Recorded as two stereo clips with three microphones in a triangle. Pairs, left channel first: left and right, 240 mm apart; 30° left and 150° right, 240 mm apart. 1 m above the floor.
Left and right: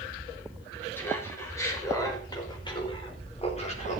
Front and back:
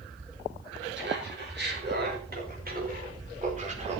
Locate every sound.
0.9 s laughter: 170° left, 6 m; by 4.0 s 150° left, 3.5 m